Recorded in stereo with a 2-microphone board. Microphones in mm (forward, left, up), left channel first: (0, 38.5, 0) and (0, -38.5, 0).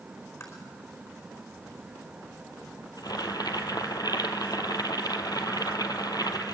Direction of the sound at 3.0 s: 60° left (ahead or behind).